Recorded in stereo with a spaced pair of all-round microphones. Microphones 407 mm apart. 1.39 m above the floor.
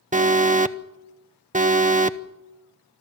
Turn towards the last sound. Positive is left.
turn(degrees=-20)  # may be behind; listen again after turning